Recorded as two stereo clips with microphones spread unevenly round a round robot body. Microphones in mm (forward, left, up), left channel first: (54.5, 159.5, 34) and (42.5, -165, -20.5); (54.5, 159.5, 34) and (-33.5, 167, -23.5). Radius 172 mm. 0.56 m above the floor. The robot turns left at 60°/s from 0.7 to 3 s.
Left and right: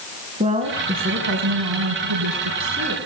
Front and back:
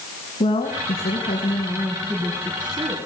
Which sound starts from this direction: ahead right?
A woman speaking, at 0.4 s.